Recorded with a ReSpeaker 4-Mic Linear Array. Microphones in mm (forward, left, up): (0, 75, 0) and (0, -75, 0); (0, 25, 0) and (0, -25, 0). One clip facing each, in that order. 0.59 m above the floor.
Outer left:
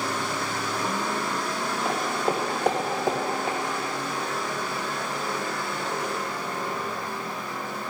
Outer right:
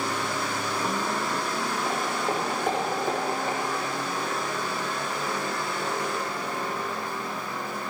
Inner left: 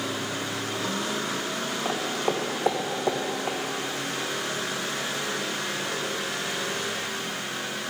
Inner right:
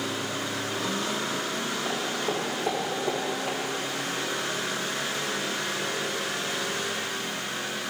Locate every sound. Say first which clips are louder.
1.9 s footsteps: outer left 4 dB, inner left 4 dB; 70° left (ahead or behind), 2.5 m; by 3.6 s 80° left, 3 m